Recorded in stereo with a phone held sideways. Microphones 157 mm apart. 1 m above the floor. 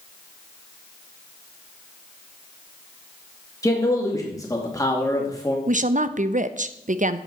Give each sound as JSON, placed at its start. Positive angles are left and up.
{"t": 3.6, "sound": "a man speaking", "side_deg": 20, "distance_m": 2.0}
{"t": 5.7, "sound": "a woman speaking", "side_deg": -55, "distance_m": 0.5}